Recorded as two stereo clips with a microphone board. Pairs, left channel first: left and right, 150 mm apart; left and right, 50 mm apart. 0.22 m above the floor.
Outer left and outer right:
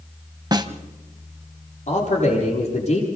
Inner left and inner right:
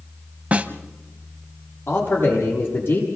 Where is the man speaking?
50° left (ahead or behind), 8 m.